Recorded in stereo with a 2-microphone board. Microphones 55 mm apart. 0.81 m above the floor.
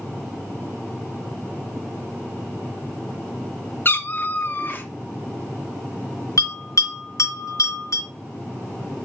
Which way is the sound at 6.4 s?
75° left (ahead or behind).